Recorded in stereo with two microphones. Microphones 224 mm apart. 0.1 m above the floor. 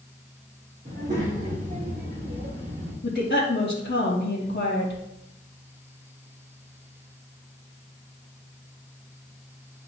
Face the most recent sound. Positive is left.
turn(degrees=45)  # may be behind; listen again after turning